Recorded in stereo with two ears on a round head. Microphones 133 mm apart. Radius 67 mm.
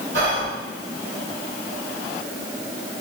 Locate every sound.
0.1 s whispering: 75° right (ahead or behind), 1.8 m